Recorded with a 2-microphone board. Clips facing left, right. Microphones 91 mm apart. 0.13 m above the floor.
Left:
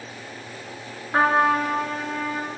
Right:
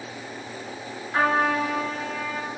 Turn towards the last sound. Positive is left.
turn(degrees=40)  # may be behind; listen again after turning